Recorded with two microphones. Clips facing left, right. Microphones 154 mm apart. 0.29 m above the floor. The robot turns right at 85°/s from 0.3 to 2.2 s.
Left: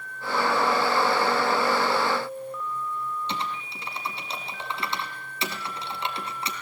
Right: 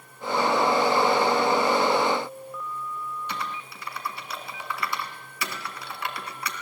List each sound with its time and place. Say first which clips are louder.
3.3 s typing on a keyboard: left 2 dB; 25° left (ahead or behind), 2.5 m